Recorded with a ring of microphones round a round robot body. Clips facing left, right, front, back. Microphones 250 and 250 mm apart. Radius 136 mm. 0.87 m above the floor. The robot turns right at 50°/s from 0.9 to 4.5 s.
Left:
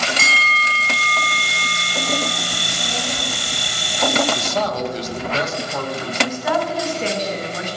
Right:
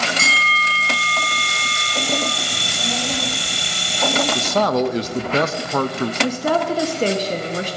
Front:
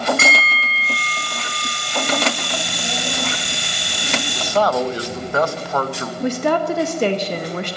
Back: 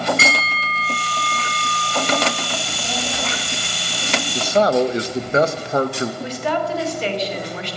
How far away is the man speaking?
About 0.7 m.